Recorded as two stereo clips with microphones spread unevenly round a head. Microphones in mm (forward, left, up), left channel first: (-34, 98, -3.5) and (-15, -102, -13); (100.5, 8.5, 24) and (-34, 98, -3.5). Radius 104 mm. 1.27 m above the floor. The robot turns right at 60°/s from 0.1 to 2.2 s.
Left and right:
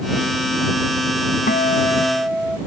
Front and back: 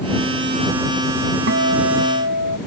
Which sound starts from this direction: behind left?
A guitar, at 1.5 s.